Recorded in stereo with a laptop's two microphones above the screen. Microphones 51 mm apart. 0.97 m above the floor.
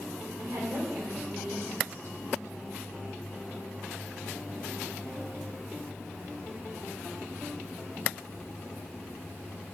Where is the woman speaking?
75° right (ahead or behind), 4.5 m.